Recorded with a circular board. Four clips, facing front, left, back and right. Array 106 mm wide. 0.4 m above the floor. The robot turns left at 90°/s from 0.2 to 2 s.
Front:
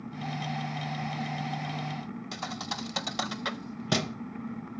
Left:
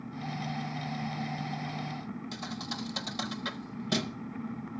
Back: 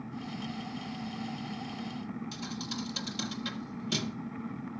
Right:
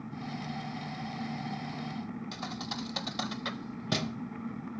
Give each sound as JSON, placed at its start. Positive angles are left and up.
{"t": 2.3, "sound": "a thud", "azimuth_deg": -10, "distance_m": 0.7}